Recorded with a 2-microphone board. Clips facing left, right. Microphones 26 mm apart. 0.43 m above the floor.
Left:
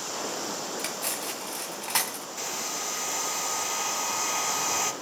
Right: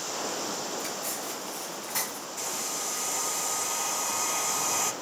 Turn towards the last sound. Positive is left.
turn(degrees=15)  # may be behind; listen again after turning